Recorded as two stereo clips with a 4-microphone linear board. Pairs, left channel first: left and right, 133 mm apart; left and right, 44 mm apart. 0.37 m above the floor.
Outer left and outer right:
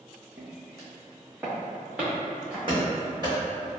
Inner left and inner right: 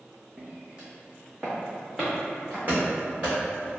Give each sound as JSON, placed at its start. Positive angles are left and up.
{"t": 0.4, "sound": "footsteps", "side_deg": -30, "distance_m": 1.1}
{"t": 2.7, "sound": "running footsteps", "side_deg": -35, "distance_m": 1.6}